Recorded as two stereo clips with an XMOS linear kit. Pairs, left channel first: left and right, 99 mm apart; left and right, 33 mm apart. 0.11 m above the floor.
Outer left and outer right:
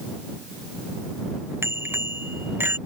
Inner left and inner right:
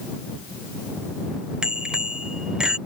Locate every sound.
1.6 s a bicycle bell: 25° right (ahead or behind); by 2.8 s 20° right (ahead or behind)